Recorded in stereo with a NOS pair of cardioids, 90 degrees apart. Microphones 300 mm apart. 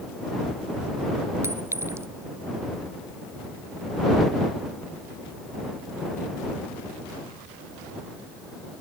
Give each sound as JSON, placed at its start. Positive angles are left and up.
{"t": 1.4, "sound": "a clink", "azimuth_deg": -10}